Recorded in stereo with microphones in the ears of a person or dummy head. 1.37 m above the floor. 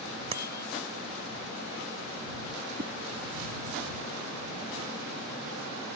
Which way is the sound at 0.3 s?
25° right (ahead or behind).